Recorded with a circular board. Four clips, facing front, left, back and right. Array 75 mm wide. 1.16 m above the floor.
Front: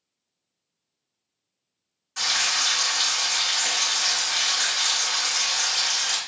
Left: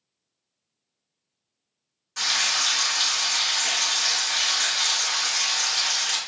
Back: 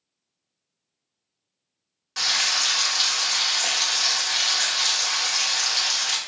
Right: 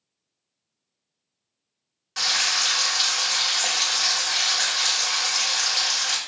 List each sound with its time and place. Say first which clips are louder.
2.2 s frying: right 1 dB, even; 145° right, 1.2 m